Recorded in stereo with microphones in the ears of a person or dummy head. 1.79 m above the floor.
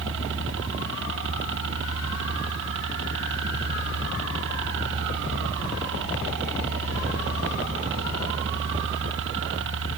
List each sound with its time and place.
0.0 s a helicopter: 65° right (ahead or behind)